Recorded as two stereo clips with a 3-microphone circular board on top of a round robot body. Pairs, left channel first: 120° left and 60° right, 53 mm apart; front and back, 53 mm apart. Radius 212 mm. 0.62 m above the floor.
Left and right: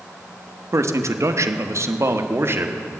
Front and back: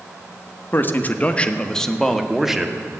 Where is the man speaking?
45° right, 1.5 m; by 2.8 s 100° right, 1.8 m.